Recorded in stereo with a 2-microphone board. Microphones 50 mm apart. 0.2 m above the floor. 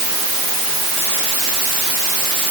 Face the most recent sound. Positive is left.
No sound to turn to.